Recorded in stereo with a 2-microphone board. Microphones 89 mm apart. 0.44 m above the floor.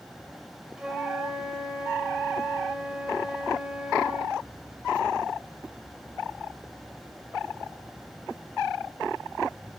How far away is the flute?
About 1.5 m.